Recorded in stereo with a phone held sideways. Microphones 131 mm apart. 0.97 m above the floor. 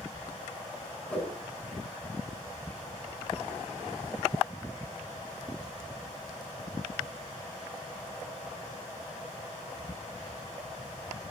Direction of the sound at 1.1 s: 10° left (ahead or behind).